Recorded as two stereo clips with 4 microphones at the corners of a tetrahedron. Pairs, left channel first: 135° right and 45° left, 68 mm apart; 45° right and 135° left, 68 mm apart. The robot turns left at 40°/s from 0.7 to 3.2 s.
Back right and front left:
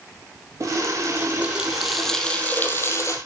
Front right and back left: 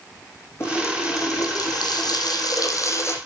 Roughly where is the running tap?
Ahead.